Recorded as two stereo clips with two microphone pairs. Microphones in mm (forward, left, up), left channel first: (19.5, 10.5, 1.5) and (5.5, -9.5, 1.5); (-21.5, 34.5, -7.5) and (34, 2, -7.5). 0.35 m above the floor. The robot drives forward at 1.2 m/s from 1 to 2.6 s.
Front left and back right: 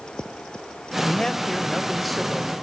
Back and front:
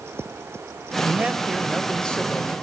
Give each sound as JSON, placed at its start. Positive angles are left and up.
{"t": 1.0, "sound": "a man speaking", "azimuth_deg": 10, "distance_m": 1.5}